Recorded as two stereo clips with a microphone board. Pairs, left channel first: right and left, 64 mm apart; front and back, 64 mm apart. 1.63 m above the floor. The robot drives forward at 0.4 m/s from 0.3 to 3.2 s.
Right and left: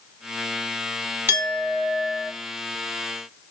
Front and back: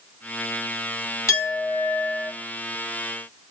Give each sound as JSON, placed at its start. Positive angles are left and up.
{"t": 1.3, "sound": "a clink", "azimuth_deg": 35, "distance_m": 2.0}